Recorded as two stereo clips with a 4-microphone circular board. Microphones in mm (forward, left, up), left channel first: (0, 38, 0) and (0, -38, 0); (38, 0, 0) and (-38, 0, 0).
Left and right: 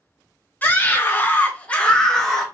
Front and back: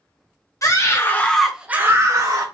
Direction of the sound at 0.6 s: 30° left.